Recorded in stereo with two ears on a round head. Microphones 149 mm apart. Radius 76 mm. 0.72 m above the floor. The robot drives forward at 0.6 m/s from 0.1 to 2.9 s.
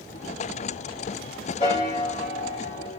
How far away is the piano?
About 2.5 m.